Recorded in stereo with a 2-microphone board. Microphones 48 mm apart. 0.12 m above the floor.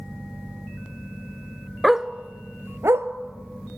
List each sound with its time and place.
1.8 s a dog barking: centre (ahead or behind), 0.7 m; by 3.1 s 65° right (ahead or behind), 1.2 m